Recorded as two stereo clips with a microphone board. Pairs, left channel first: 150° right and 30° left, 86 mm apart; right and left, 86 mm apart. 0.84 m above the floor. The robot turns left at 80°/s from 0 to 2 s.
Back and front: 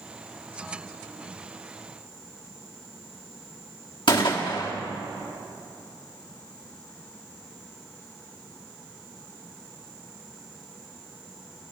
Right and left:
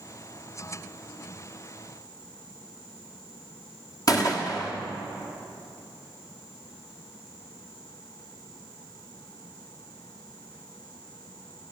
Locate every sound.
4.1 s a gunshot: 135° right, 1.3 m